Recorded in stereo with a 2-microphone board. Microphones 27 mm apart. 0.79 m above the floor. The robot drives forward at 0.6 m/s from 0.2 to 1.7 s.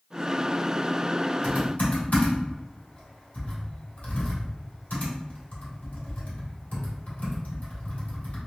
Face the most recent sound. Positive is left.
turn(degrees=75)  # may be behind; listen again after turning